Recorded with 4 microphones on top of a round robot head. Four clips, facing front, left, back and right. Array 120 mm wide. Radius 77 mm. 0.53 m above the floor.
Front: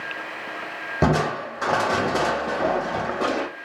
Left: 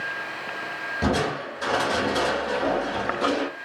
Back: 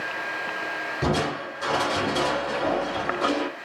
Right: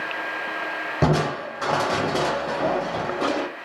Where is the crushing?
35° right, 0.6 m.